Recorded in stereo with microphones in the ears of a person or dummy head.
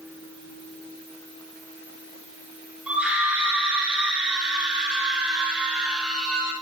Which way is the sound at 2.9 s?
5° right (ahead or behind).